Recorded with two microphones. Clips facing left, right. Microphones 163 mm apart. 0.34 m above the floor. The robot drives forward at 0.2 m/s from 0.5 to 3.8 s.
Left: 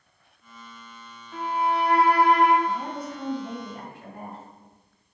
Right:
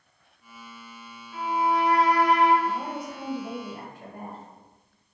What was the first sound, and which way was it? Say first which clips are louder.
A violin: right 1 dB; 65° left (ahead or behind).